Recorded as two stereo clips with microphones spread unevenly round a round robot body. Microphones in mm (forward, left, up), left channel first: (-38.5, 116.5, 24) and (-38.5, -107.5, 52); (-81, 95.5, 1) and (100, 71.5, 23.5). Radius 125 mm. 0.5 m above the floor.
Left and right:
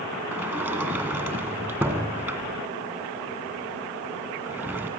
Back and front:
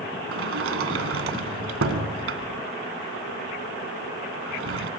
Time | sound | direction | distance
0.3 | a sliding door | 10° right | 2.0 m